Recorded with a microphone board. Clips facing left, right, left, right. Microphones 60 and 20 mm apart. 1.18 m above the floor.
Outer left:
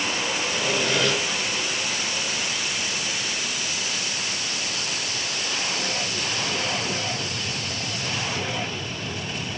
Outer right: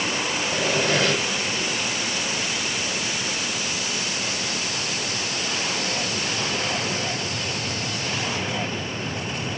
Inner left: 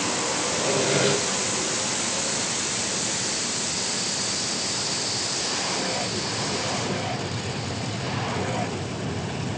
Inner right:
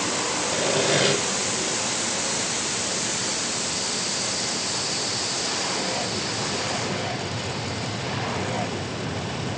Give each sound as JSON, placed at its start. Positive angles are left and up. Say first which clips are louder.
{"t": 0.5, "sound": "sawing", "louder": "outer right 3 dB, inner right 2 dB", "side_deg": -50, "distance_m": 5.0}